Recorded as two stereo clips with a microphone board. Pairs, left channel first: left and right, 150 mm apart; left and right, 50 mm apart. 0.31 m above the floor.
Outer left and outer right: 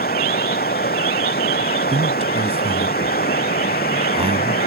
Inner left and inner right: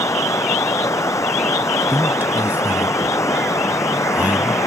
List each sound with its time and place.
0.0 s running water: 90° left
1.9 s a man speaking: 40° right (ahead or behind)